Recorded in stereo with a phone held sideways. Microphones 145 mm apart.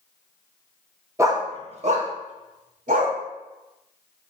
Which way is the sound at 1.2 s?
20° right (ahead or behind).